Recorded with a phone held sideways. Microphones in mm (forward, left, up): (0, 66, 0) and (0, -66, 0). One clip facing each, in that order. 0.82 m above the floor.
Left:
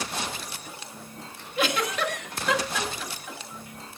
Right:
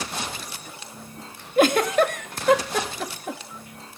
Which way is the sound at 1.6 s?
50° right (ahead or behind).